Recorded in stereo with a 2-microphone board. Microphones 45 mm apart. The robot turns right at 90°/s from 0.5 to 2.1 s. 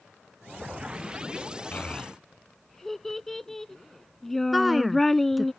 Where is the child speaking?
40° left (ahead or behind); by 5.5 s 5° left (ahead or behind).